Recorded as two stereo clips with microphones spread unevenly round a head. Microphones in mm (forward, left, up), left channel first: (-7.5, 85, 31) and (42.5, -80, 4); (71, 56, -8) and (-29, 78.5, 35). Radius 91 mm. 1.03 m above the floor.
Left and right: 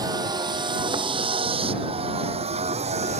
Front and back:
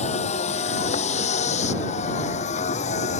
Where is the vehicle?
5° right; by 3.2 s 20° right.